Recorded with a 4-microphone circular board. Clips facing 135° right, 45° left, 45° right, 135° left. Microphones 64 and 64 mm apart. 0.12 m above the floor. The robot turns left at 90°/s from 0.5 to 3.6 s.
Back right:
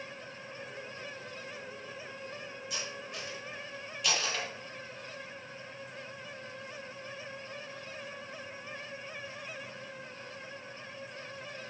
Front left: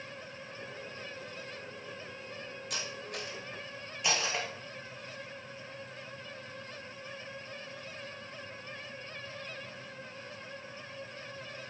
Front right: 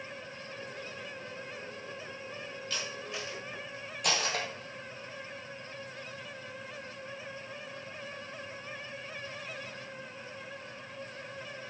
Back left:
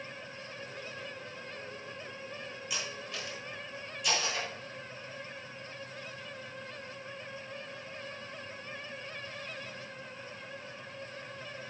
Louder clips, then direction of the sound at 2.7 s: Front left 1 dB, front right 1 dB; 60° left.